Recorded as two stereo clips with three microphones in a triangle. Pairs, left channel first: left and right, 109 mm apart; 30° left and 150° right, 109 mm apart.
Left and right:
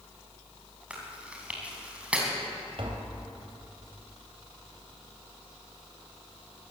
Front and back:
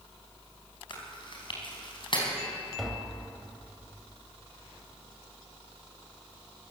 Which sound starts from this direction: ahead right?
Tapping, at 2.8 s.